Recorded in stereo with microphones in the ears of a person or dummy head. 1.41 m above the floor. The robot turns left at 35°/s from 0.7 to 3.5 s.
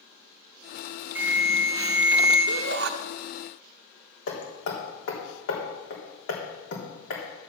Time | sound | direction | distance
1.1 | an alarm | 175° right | 2.5 m
2.5 | a shout | 60° right (ahead or behind) | 0.8 m
4.3 | hammering | 65° left (ahead or behind) | 3 m